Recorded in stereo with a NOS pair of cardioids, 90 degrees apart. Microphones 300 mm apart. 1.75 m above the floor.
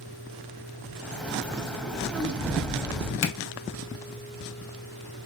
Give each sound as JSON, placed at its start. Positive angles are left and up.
{"t": 1.0, "sound": "a bird", "azimuth_deg": 5, "distance_m": 0.9}
{"t": 3.2, "sound": "a finger snap", "azimuth_deg": 60, "distance_m": 0.8}